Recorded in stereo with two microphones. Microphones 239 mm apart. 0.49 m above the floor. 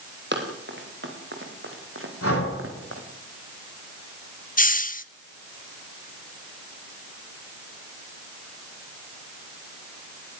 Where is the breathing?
75° left (ahead or behind), 5.5 m.